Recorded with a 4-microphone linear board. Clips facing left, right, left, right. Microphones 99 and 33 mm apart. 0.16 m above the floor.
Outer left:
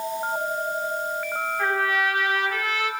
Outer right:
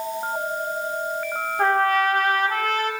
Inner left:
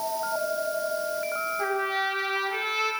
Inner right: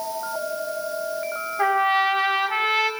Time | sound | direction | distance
1.6 | a trumpet | 45° right (ahead or behind) | 6 m